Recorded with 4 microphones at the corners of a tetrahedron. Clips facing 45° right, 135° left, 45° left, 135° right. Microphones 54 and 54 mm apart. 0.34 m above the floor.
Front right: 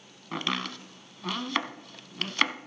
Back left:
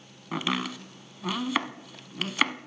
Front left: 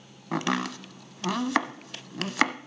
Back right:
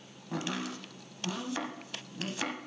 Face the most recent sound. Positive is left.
turn(degrees=50)